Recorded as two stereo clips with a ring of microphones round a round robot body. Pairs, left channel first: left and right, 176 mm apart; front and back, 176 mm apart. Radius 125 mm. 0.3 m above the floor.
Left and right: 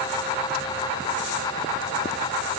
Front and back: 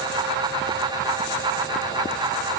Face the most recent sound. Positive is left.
No sound to turn to.